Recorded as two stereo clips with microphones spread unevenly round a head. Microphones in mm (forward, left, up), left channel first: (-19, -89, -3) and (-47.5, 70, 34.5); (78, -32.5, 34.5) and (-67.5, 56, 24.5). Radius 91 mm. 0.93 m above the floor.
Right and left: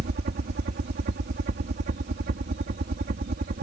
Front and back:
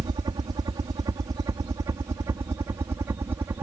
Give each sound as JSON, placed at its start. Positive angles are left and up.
{"t": 0.0, "sound": "a helicopter", "azimuth_deg": 90}